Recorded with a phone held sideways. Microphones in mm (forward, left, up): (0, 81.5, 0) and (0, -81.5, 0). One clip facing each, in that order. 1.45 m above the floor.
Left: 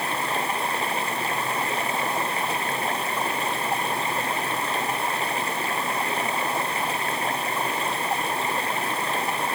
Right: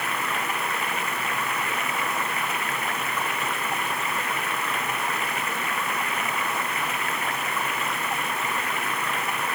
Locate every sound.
0.0 s running water: 30° left (ahead or behind)